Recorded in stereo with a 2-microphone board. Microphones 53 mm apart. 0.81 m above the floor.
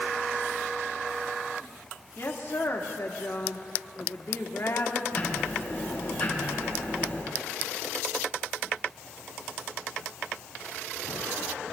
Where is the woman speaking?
50° left (ahead or behind), 1.7 m.